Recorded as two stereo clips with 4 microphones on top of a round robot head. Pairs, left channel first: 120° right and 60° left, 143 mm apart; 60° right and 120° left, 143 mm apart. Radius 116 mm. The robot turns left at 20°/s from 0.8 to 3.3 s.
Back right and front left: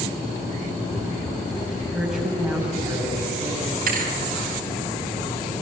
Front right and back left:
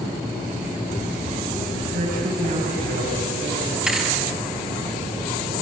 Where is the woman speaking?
150° left, 7.5 m; by 3.8 s 125° left, 7.5 m.